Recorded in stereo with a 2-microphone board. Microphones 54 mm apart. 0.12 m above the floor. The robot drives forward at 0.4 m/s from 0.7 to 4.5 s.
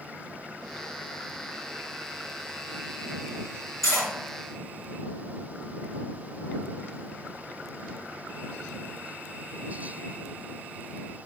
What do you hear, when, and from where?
3.8 s cutlery clinking: 65° right (ahead or behind), 1.9 m